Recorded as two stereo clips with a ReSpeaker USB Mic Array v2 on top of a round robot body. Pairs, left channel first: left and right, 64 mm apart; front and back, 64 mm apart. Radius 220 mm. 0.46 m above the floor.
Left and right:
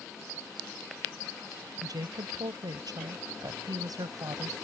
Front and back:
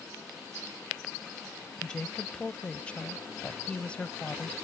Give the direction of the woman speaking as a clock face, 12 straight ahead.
2 o'clock.